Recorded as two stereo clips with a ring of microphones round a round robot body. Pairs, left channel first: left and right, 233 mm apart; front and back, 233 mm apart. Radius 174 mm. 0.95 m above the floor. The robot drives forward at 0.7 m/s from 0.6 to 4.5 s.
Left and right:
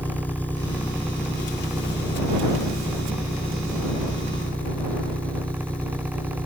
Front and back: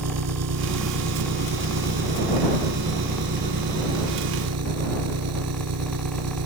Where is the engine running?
175° left.